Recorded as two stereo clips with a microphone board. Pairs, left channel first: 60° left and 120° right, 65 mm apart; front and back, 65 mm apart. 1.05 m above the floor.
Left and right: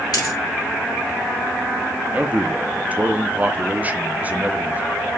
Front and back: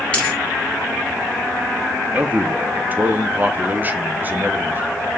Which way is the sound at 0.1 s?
75° left.